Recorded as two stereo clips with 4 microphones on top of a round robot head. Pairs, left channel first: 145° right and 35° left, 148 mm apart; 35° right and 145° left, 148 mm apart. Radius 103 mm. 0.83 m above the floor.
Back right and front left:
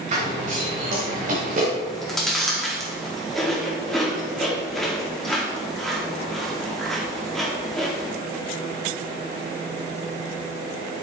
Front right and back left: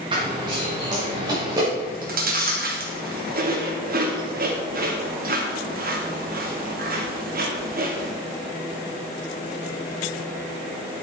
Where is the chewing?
125° left, 2.5 m.